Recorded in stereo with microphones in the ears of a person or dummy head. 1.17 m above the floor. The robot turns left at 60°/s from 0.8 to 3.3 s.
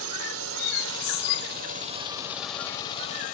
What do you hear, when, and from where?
0.0 s a drone: 75° right (ahead or behind); by 3.4 s 50° left (ahead or behind)